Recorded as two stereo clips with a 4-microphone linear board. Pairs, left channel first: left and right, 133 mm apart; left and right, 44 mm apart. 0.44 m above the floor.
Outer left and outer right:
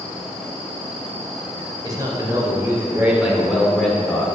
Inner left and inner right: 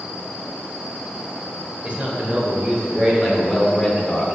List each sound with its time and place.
1.8 s a man speaking: 30° right (ahead or behind), 2 m; by 4.2 s 20° left (ahead or behind), 1.5 m